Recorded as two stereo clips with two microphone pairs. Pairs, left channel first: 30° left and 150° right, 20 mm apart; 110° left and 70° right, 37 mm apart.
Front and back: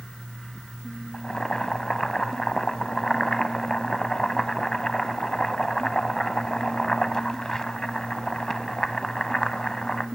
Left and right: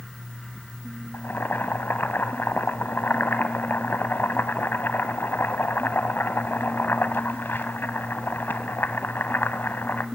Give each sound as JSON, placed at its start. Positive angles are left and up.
{"t": 1.1, "sound": "boiling", "azimuth_deg": 90, "distance_m": 0.8}